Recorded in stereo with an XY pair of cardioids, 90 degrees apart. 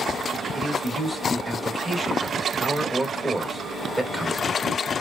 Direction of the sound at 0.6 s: 5° right.